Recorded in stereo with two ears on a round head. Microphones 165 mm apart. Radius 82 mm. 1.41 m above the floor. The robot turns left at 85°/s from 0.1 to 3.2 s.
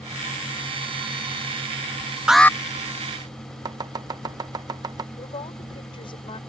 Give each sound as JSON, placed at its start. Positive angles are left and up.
{"t": 2.3, "sound": "an alarm", "side_deg": -5}
{"t": 3.6, "sound": "chopping", "side_deg": -20}
{"t": 5.2, "sound": "a woman speaking", "side_deg": 30}